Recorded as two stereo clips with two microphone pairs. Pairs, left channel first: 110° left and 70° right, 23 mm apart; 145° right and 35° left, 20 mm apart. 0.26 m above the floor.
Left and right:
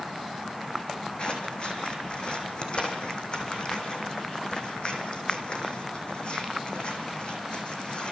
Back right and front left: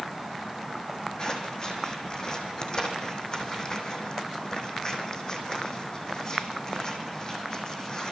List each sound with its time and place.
1.2 s scissors: 155° left, 5 m